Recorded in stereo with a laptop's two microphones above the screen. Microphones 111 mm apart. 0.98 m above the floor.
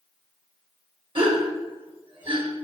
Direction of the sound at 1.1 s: 50° right (ahead or behind).